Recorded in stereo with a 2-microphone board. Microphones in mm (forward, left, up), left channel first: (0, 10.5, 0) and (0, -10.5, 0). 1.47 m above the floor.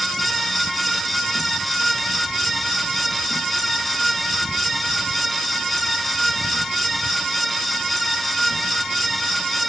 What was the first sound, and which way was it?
Only background noise.